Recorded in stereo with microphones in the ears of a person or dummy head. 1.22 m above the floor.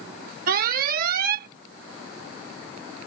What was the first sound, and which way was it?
An alarm, 55° right (ahead or behind).